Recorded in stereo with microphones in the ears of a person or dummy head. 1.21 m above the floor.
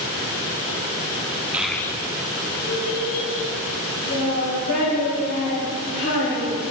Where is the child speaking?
10° right (ahead or behind), 0.7 m; by 6.6 s 80° left, 5 m.